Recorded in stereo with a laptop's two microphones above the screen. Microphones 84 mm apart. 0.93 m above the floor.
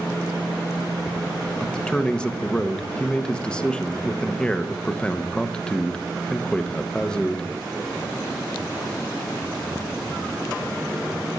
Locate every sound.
1.6 s a man speaking: 10° left (ahead or behind), 0.8 m